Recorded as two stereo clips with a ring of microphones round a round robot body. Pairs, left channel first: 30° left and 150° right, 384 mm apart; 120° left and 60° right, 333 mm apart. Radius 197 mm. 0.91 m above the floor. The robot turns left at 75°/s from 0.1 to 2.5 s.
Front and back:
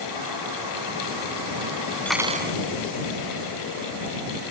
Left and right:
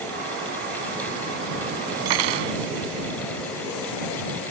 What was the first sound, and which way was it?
Cutlery clinking, 55° right.